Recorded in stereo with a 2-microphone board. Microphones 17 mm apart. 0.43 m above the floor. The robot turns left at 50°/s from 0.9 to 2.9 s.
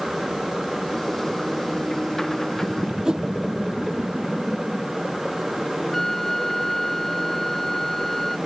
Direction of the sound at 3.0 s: 40° right (ahead or behind).